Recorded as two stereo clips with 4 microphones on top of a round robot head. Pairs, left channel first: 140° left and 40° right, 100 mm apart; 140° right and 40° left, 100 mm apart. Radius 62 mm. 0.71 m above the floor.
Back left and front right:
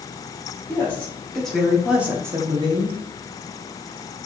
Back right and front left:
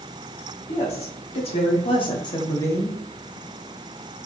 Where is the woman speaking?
150° right, 2.5 m; by 3.0 s 65° right, 1.4 m.